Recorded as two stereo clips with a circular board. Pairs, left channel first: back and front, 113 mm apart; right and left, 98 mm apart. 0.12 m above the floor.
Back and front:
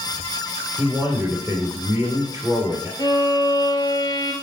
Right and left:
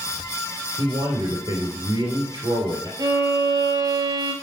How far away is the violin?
About 1.2 m.